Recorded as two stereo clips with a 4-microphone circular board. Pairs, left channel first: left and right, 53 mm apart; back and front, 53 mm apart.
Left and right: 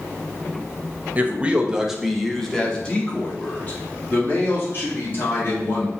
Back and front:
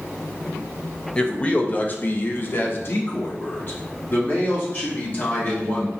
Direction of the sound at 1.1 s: 120° right.